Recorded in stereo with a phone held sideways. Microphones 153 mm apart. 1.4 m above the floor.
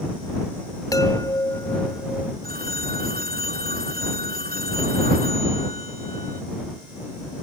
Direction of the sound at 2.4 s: 75° right (ahead or behind).